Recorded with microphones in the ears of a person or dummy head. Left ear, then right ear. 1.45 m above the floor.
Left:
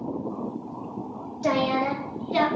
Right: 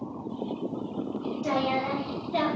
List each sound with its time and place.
1.4 s a woman speaking: 60° left (ahead or behind), 0.7 m; by 2.5 s 20° left (ahead or behind), 0.8 m